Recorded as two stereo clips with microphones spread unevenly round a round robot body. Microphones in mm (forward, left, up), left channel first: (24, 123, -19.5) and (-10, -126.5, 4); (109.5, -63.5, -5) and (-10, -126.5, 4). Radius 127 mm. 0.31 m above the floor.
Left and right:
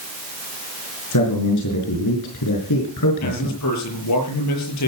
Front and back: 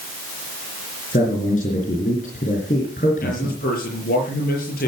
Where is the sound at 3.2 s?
60° left, 6.5 m.